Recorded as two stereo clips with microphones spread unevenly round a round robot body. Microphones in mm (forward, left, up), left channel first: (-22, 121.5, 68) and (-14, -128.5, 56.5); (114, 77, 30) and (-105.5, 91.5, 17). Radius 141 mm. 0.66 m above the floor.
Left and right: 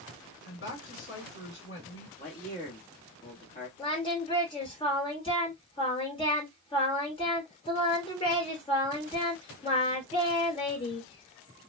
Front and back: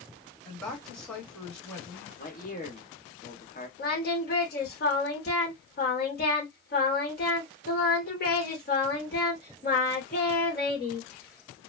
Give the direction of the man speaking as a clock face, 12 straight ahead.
11 o'clock.